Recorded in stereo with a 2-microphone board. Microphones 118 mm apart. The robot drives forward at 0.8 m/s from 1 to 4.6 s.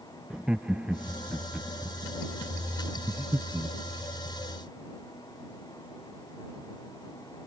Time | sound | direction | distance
0.3 | laughter | 10° right (ahead or behind) | ?
3.1 | breathing | 25° right (ahead or behind) | ?